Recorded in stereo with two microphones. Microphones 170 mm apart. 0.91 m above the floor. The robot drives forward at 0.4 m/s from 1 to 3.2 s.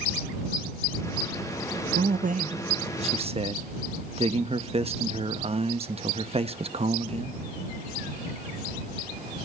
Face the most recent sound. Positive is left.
turn(degrees=-35)  # may be behind; listen again after turning